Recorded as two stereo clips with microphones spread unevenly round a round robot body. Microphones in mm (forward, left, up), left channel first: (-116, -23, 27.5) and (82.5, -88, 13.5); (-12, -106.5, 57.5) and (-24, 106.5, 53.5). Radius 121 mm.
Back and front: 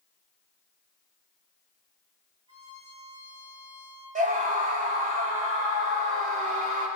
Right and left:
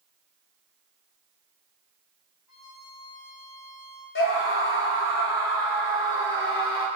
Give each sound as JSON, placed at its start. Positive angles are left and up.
{"t": 2.5, "sound": "a violin", "azimuth_deg": -85, "distance_m": 3.0}
{"t": 4.2, "sound": "a scream", "azimuth_deg": -60, "distance_m": 3.5}